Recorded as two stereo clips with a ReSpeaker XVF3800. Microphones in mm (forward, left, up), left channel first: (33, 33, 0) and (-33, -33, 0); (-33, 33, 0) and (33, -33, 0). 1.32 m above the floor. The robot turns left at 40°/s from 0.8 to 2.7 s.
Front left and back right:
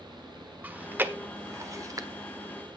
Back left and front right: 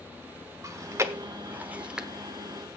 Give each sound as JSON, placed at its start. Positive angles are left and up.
{"t": 0.6, "sound": "chewing", "azimuth_deg": -70, "distance_m": 1.1}